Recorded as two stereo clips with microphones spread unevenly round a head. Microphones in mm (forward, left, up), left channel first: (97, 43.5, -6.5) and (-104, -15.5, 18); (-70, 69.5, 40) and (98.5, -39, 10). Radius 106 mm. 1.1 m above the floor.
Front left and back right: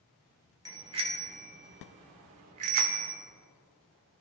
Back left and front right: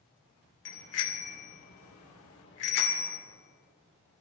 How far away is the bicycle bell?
About 2.5 m.